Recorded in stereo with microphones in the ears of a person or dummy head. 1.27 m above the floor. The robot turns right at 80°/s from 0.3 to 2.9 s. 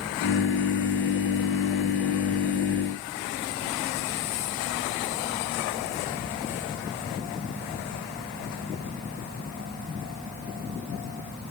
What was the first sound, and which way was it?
Only background noise.